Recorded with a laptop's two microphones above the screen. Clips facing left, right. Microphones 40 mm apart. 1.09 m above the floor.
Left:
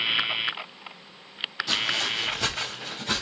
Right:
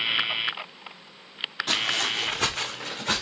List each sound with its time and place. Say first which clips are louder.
1.7 s footsteps: right 1 dB; 50° right (ahead or behind), 2 m; by 3.2 s 55° right (ahead or behind), 4.5 m